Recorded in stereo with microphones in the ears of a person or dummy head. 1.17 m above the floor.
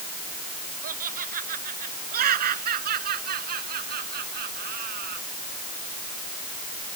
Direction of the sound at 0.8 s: 50° right (ahead or behind).